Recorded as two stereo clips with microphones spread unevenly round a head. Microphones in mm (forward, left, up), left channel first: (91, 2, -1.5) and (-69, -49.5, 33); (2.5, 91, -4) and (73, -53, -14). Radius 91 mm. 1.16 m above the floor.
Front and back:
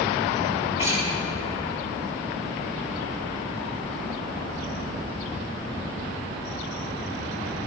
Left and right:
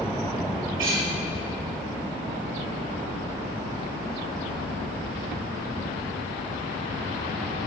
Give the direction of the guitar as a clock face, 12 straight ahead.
3 o'clock.